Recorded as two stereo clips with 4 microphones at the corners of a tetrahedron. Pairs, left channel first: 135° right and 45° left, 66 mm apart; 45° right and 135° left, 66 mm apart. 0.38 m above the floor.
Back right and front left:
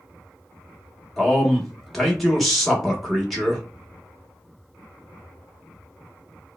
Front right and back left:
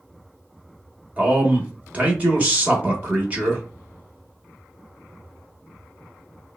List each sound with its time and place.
1.2 s a man speaking: 140° left, 0.8 m